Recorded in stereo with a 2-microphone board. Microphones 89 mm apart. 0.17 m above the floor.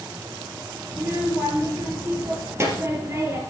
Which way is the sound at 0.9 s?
30° right (ahead or behind).